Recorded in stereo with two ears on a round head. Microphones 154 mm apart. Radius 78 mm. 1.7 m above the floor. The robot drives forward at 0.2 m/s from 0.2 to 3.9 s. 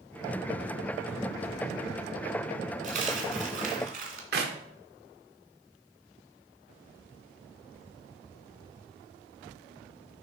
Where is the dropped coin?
50° right (ahead or behind), 2.5 m.